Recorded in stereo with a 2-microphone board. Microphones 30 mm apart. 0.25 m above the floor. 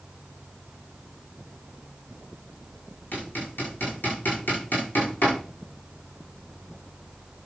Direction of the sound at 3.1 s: 85° left.